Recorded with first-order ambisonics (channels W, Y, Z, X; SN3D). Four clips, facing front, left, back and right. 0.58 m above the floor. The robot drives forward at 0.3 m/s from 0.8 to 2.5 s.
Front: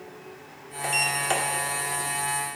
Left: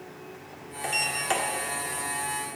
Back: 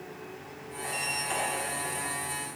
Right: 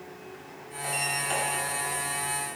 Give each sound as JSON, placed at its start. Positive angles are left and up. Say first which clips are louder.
{"t": 0.8, "sound": "a sliding door", "louder": "left 2 dB, front 7 dB", "azimuth_deg": 30, "distance_m": 1.5}